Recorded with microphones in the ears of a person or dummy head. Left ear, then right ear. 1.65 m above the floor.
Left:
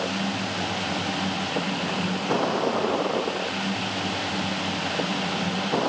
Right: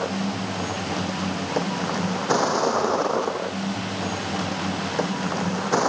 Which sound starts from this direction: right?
A vehicle, at 0.0 s.